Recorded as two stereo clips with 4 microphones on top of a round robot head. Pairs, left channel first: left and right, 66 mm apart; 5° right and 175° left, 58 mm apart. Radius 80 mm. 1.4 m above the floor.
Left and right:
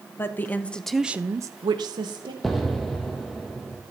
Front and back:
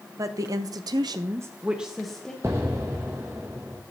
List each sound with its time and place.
0.2 s a woman speaking: 145° left, 1.1 m; by 2.3 s 85° right, 1.1 m
2.4 s an explosion: straight behind, 0.7 m